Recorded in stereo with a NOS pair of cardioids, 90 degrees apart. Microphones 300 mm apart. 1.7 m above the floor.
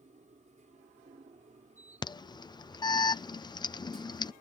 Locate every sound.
0.0 s a machine running: 25° right
2.0 s an alarm: 15° left